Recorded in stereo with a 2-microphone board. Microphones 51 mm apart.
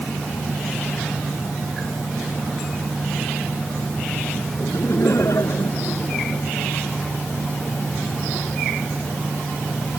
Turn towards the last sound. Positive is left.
turn(degrees=65)  # may be behind; listen again after turning